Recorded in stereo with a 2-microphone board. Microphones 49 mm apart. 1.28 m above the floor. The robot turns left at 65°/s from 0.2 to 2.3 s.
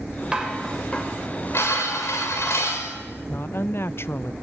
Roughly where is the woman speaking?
Left.